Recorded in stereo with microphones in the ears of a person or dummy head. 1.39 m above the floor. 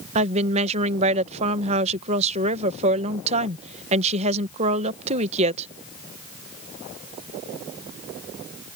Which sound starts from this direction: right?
A woman speaking, at 0.1 s.